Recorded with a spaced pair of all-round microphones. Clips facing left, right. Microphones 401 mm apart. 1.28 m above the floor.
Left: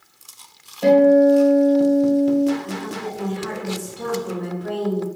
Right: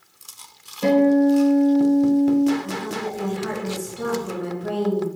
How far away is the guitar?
About 1.0 m.